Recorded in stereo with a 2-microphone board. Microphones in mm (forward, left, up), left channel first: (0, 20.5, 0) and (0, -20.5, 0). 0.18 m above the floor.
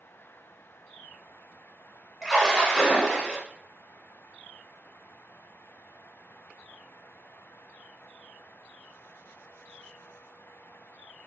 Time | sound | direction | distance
2.2 | a splash | 5° right (ahead or behind) | 1.0 m